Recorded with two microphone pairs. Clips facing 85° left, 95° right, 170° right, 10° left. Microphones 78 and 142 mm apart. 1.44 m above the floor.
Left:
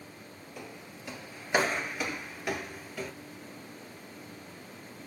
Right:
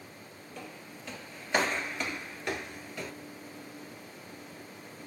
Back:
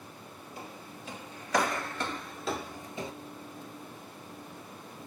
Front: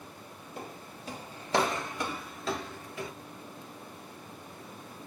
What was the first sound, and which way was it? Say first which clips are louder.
Footsteps: even, front 2 dB; 10° left.